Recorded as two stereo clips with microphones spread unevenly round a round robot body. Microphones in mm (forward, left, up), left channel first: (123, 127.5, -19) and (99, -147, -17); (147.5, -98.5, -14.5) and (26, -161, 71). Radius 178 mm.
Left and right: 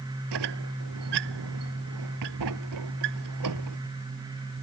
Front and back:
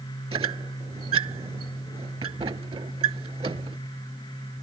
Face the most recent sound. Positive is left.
turn(degrees=-110)